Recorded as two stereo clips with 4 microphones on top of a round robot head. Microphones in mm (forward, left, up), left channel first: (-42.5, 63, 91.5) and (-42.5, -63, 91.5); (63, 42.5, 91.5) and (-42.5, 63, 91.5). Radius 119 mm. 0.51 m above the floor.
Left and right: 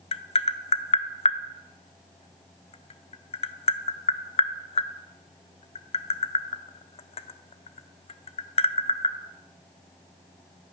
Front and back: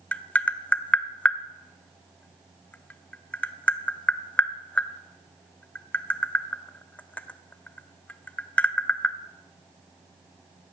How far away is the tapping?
About 0.7 m.